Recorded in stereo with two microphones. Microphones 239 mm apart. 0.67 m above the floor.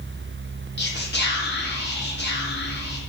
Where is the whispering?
45° left (ahead or behind), 0.8 m.